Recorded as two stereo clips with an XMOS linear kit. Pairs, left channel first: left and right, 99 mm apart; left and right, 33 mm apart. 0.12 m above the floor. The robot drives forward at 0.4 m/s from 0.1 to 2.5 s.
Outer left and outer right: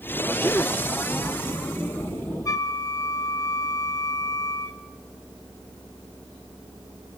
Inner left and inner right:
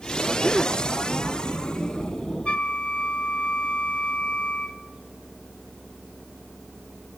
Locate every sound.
0.4 s a gasp: 25° left (ahead or behind), 0.7 m; by 0.8 s 20° left (ahead or behind), 0.7 m
2.5 s a flute: 35° left (ahead or behind), 1.1 m